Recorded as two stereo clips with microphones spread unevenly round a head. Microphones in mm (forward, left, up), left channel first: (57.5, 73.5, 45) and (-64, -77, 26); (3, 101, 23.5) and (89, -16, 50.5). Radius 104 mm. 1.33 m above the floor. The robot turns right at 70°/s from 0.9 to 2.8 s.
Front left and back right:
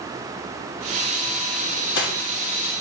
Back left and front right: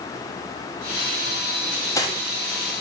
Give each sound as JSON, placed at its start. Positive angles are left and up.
{"t": 1.6, "sound": "cutlery clinking", "azimuth_deg": 30, "distance_m": 1.1}